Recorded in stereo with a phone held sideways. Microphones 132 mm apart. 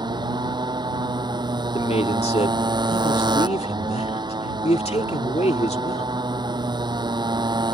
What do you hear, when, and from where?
0.0 s a motorcycle: 35° right (ahead or behind)
1.7 s a man speaking: 55° left (ahead or behind)